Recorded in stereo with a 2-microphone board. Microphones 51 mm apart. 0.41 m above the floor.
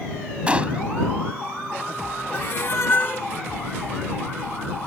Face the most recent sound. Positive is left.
turn(degrees=45)  # may be behind; listen again after turning